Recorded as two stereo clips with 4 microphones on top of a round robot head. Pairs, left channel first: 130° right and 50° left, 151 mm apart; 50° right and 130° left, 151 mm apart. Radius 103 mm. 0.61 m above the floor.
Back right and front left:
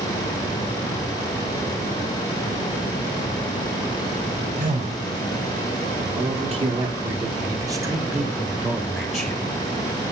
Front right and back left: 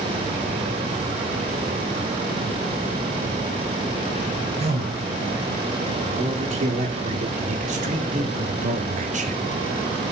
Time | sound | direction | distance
4.6 | a man speaking | 85° left | 3 m